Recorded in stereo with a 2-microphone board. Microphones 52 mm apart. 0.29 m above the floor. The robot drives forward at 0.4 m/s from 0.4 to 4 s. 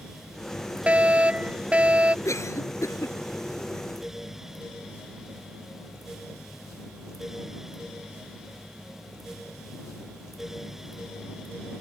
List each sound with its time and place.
0.9 s a fire alarm: 25° right (ahead or behind)
2.2 s a cough: 70° left (ahead or behind); by 3.2 s 65° left (ahead or behind)